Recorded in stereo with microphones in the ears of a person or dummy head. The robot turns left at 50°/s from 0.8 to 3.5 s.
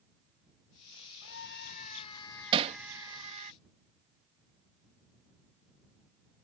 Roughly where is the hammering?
Right.